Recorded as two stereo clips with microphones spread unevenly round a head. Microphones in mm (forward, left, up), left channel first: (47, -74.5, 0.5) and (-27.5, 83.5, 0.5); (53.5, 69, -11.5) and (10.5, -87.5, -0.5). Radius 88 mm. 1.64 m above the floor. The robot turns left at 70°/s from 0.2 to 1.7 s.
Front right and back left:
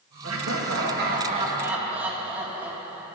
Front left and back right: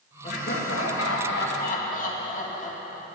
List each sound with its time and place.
0.2 s laughter: 135° left, 2.5 m; by 3.1 s 35° left, 2.5 m